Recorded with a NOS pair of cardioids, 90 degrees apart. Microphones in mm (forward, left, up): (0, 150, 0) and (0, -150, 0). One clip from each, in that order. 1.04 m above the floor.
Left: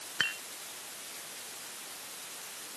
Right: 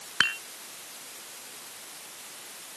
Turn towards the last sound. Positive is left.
turn(degrees=-40)